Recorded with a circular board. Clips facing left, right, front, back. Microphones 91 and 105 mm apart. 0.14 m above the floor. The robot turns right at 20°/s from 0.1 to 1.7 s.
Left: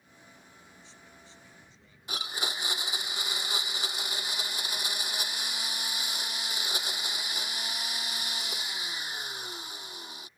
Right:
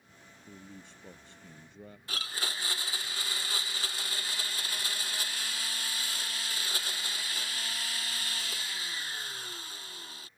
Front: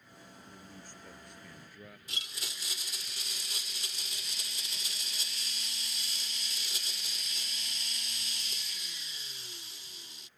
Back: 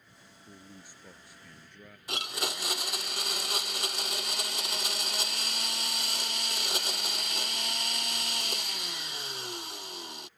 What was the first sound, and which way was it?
A man speaking, 110° right.